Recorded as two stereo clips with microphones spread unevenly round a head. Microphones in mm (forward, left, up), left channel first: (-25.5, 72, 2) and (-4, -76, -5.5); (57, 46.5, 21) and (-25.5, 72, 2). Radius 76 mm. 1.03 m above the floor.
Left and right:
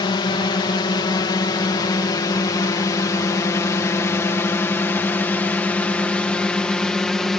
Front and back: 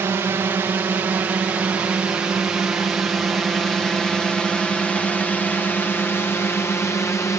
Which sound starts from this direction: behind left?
A drone, at 0.0 s.